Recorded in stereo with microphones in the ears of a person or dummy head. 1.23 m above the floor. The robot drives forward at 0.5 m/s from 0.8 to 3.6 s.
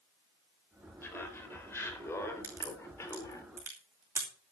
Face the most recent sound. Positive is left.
turn(degrees=-15)  # may be behind; listen again after turning